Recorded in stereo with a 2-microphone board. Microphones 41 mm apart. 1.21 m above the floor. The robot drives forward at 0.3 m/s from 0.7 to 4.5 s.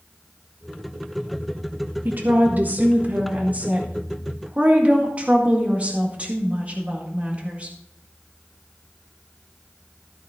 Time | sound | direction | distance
2.0 | a woman speaking | 50° right (ahead or behind) | 1.3 m